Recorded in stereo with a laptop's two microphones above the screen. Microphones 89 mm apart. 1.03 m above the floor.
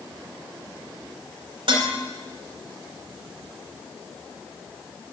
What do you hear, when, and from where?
1.7 s dishes clattering: 70° right (ahead or behind), 2.5 m